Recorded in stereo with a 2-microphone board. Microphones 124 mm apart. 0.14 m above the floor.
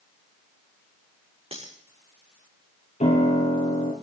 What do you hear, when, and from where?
1.5 s cutlery clinking: 50° right (ahead or behind), 6.5 m
3.0 s a piano: 70° left (ahead or behind), 4.5 m